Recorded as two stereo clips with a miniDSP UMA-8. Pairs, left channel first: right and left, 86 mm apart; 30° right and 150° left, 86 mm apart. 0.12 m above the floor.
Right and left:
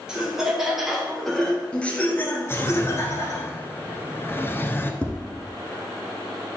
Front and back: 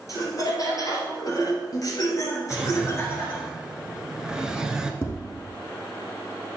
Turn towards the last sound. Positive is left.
turn(degrees=-30)